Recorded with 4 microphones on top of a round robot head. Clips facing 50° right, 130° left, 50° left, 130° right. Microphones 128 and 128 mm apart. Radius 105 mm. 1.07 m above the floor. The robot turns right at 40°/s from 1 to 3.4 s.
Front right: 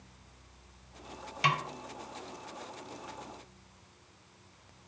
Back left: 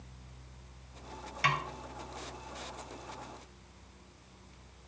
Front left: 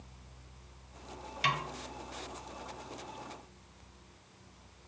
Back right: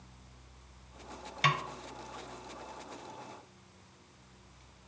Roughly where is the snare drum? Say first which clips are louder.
Front right 2 dB, back right 2 dB; right.